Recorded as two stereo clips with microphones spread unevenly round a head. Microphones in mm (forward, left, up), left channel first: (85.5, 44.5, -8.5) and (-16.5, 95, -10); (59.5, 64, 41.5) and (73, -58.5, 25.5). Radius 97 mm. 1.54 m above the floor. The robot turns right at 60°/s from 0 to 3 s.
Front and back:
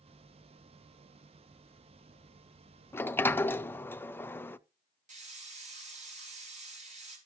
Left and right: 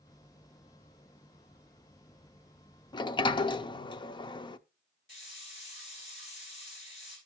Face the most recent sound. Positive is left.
turn(degrees=150)